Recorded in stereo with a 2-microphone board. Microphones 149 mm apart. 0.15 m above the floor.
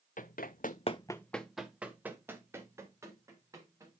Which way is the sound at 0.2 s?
70° left (ahead or behind).